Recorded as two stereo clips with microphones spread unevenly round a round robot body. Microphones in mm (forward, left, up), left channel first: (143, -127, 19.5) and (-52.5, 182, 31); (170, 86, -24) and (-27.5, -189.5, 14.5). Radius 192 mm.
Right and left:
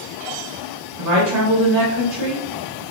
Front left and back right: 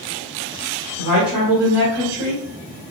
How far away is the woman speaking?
About 1.6 m.